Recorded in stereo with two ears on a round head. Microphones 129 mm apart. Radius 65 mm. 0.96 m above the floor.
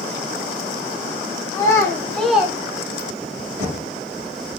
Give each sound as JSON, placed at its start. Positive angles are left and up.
{"t": 1.5, "sound": "a child speaking", "side_deg": 25, "distance_m": 1.0}
{"t": 3.6, "sound": "knocking", "side_deg": -25, "distance_m": 2.5}